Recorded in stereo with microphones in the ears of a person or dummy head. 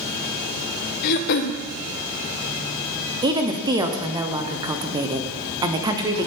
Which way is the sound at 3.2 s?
20° right (ahead or behind).